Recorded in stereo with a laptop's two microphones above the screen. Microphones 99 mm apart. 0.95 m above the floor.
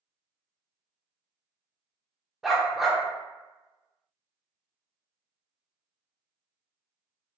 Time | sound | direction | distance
2.4 | a dog barking | 5° right (ahead or behind) | 0.5 m